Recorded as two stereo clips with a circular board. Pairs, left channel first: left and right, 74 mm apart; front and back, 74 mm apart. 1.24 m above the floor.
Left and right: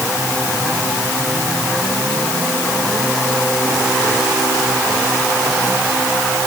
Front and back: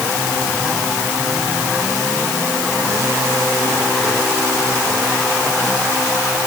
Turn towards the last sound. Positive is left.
No sound to turn to.